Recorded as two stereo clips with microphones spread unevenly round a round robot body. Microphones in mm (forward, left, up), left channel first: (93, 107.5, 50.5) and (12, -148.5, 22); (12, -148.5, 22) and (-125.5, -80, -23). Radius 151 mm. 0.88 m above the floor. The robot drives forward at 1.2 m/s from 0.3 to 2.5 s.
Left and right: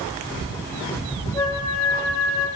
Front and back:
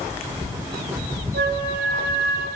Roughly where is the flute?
Behind left.